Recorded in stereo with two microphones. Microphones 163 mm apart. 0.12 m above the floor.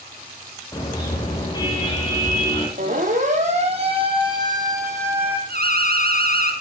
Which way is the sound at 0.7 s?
20° left (ahead or behind).